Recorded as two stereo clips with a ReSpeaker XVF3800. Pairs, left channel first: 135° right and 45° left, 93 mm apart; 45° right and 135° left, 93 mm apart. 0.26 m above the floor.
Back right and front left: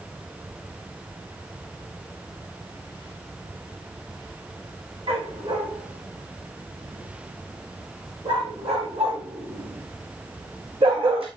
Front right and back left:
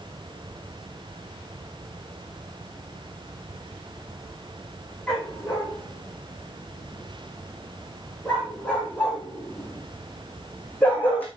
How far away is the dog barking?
About 8 m.